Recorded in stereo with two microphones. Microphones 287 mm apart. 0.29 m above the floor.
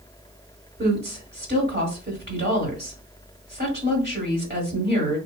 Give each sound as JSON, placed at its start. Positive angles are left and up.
{"t": 0.8, "sound": "a woman speaking", "side_deg": -35, "distance_m": 1.7}